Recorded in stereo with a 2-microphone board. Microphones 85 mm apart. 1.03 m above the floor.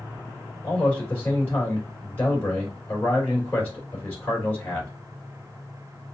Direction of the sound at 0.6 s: 25° left (ahead or behind).